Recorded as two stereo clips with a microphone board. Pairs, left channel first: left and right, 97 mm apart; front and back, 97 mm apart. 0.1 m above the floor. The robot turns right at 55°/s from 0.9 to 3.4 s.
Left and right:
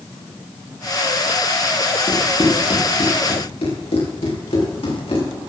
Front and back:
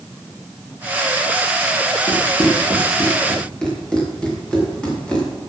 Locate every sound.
2.1 s running footsteps: 10° left, 5.5 m; by 5.2 s 80° left, 8 m